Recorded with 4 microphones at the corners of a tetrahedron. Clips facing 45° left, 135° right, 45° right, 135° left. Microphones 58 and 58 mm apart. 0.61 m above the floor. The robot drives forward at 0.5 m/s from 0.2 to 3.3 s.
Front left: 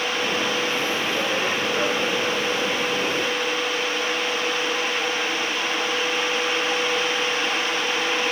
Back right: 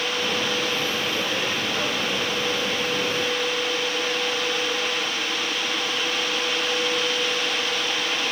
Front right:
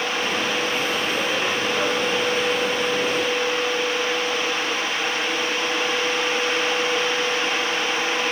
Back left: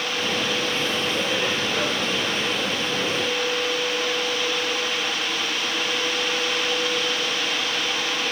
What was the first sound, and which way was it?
Only background noise.